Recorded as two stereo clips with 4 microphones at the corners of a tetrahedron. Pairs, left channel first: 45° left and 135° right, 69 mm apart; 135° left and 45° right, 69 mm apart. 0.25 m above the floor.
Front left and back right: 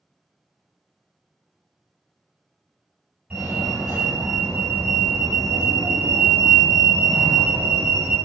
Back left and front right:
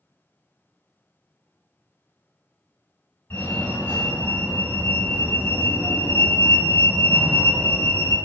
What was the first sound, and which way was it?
A fire alarm, 165° left.